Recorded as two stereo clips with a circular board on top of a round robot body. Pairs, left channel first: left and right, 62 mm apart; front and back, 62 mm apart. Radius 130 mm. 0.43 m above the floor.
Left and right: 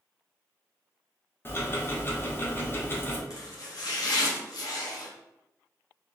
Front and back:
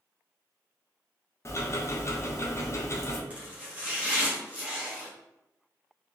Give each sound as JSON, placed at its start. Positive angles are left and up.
{"t": 1.4, "sound": "ticking", "azimuth_deg": 40, "distance_m": 0.8}
{"t": 3.3, "sound": "chopping", "azimuth_deg": 110, "distance_m": 1.1}